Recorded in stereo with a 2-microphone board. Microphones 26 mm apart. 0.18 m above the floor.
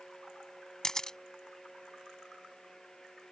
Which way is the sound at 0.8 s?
20° left (ahead or behind).